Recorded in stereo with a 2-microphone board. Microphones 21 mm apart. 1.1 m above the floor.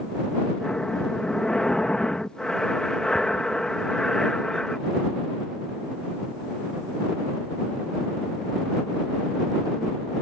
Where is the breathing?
40° left (ahead or behind).